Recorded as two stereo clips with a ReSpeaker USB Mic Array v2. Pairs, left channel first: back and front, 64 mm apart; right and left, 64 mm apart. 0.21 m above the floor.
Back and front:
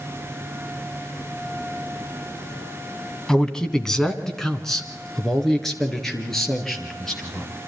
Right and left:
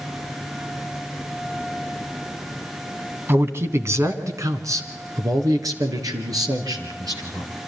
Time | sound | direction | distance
3.3 | a man speaking | 105° left | 1.2 m